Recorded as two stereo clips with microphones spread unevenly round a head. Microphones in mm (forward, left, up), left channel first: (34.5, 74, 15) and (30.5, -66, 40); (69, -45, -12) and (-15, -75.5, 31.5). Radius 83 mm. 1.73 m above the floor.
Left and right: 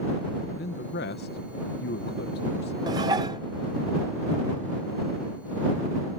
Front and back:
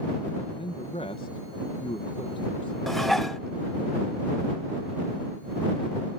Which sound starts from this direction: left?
A man speaking, at 0.5 s.